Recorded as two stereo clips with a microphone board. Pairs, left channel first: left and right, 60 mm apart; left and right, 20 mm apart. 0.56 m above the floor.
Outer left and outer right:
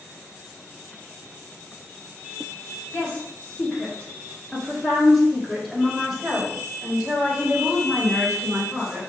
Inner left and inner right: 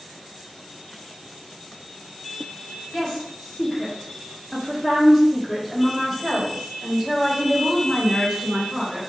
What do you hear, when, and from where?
2.9 s a woman speaking: 35° left (ahead or behind), 1.5 m; by 9.0 s 20° right (ahead or behind), 3 m